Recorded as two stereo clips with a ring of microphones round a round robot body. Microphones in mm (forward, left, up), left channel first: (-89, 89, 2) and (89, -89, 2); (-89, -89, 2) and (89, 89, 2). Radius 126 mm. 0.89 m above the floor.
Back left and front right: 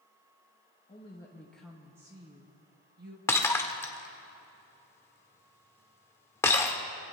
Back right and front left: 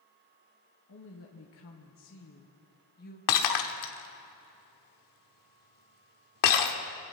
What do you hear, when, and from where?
0.9 s a woman speaking: 160° right, 1.4 m; by 3.2 s 85° right, 1.5 m
3.3 s breaking glass: 145° right, 1.2 m